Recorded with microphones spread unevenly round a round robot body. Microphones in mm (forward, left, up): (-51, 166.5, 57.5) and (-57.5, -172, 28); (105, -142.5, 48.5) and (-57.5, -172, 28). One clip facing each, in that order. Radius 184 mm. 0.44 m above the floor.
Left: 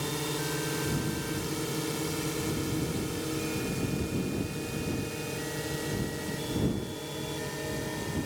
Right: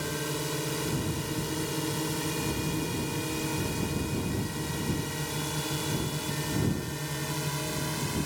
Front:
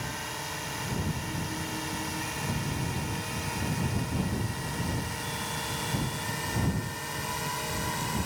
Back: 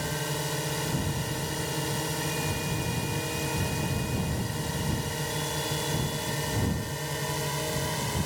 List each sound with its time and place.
0.0 s a drone: 175° left; by 8.3 s 130° right